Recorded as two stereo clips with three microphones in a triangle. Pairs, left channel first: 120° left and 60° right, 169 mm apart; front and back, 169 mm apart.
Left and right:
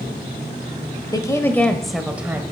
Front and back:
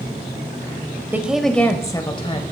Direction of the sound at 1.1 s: 120° left.